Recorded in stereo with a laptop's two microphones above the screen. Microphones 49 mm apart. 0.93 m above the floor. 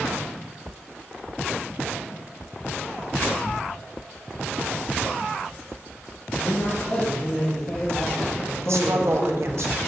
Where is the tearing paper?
70° right (ahead or behind), 1.8 m.